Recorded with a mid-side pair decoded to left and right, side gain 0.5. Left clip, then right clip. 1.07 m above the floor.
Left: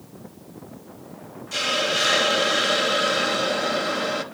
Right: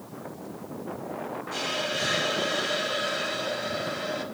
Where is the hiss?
70° left, 0.9 m.